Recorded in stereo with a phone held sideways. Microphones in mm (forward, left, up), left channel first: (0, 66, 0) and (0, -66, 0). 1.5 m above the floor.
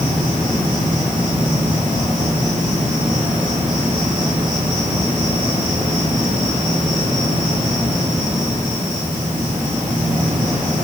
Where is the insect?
75° right (ahead or behind), 4 m.